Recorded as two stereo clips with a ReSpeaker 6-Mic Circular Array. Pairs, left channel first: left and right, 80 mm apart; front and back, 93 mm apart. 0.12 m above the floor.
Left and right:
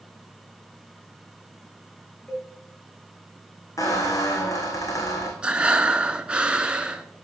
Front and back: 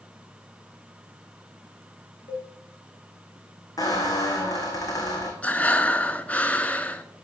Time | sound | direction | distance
2.3 | a cowbell | 10° left | 5 m
3.8 | a squeak | 45° left | 3 m
5.4 | breathing | 40° right | 0.8 m